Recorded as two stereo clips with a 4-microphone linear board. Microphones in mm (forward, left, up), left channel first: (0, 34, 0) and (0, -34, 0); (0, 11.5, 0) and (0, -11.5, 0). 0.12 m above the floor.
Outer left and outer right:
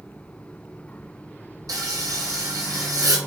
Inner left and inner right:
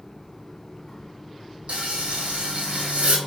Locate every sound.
1.7 s frying: 60° right (ahead or behind), 0.9 m